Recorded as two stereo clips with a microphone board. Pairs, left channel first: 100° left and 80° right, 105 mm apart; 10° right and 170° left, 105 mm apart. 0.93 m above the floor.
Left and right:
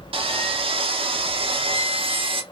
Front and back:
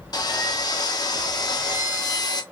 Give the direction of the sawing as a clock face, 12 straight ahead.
2 o'clock.